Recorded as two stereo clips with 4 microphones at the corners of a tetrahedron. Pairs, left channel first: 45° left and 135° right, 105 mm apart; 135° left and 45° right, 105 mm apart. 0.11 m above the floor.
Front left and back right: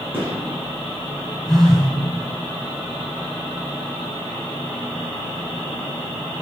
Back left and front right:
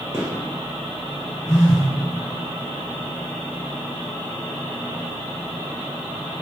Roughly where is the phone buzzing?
Behind left.